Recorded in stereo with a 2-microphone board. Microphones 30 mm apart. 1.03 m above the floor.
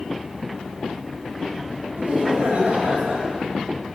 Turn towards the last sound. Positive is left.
turn(degrees=-65)  # may be behind; listen again after turning